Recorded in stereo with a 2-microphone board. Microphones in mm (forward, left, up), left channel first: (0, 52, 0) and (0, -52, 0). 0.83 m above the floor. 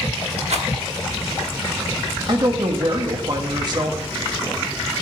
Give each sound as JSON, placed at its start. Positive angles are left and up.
{"t": 0.5, "sound": "a rattle", "side_deg": -85, "distance_m": 1.2}
{"t": 2.3, "sound": "a woman speaking", "side_deg": -40, "distance_m": 1.1}